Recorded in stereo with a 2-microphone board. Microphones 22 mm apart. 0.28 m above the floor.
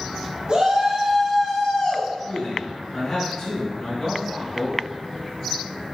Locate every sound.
0.5 s a shout: 35° right (ahead or behind), 1.3 m; by 2.1 s 40° left (ahead or behind), 1.8 m
2.2 s a man speaking: 30° left (ahead or behind), 1.7 m